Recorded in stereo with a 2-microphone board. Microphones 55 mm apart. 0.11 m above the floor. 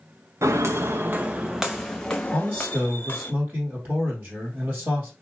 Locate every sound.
0.4 s footsteps: 65° right (ahead or behind), 0.7 m; by 3.3 s 35° left (ahead or behind), 1.2 m
2.3 s a man speaking: 40° right (ahead or behind), 2 m